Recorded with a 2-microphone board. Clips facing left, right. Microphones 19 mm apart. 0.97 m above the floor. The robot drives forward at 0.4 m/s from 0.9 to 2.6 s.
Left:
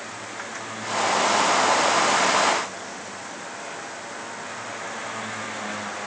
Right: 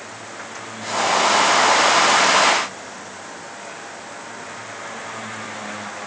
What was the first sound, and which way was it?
Only background noise.